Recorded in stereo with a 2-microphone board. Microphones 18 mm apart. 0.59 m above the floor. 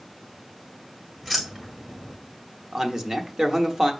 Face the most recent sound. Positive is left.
turn(degrees=-30)  # may be behind; listen again after turning